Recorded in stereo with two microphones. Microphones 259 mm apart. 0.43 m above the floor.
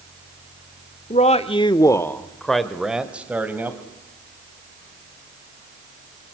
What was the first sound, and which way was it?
A man speaking, 25° left (ahead or behind).